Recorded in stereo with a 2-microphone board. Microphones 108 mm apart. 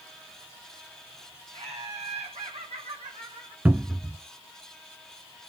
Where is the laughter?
80° right, 8 m.